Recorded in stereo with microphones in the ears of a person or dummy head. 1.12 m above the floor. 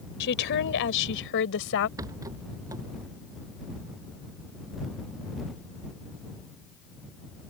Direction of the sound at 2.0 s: 20° right (ahead or behind).